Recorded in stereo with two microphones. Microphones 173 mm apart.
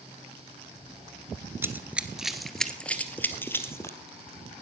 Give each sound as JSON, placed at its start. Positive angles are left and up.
{"t": 1.6, "sound": "running footsteps", "side_deg": -15, "distance_m": 1.4}